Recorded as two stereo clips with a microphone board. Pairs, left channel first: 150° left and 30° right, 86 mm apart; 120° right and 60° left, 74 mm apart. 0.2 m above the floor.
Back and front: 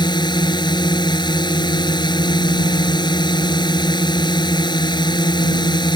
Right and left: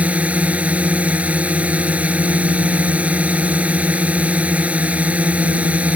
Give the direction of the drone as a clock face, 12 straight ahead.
8 o'clock.